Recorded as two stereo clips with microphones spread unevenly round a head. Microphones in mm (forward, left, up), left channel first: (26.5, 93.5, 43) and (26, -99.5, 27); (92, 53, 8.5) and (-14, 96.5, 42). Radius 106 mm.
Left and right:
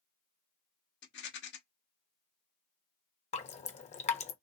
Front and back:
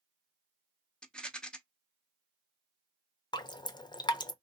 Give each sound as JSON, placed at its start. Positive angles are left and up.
{"t": 1.0, "sound": "a rattle", "azimuth_deg": 70, "distance_m": 1.1}
{"t": 3.3, "sound": "dripping", "azimuth_deg": 35, "distance_m": 0.8}